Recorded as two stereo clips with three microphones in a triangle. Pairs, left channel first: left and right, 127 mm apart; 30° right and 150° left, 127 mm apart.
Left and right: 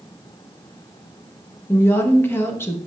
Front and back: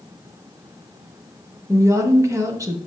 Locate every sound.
1.7 s a woman speaking: 130° left, 0.9 m